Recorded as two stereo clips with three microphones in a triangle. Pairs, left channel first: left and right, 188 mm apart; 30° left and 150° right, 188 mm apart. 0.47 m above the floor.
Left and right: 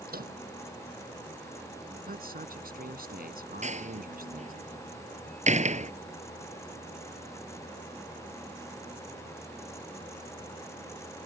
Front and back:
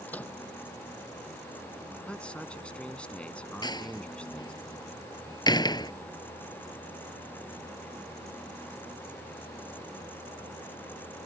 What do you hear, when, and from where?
0.1 s a microwave: 50° right
2.1 s a man speaking: 55° right
3.6 s a door slam: 40° right